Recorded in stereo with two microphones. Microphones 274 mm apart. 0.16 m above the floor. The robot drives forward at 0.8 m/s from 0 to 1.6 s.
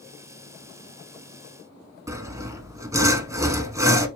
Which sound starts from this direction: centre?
Sawing, at 2.1 s.